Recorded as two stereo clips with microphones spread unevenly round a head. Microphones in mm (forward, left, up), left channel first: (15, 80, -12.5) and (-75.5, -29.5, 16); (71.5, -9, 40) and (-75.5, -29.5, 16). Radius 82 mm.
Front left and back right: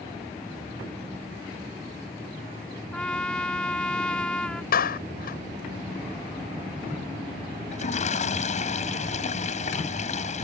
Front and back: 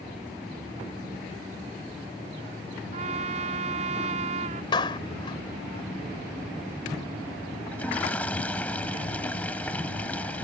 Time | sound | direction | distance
2.9 | a trumpet | 135° left | ?
4.7 | a clap | 70° left | ?
7.7 | a toilet flushing | 90° left | ?